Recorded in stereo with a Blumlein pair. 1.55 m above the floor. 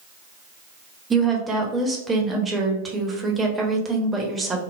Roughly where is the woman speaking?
Ahead.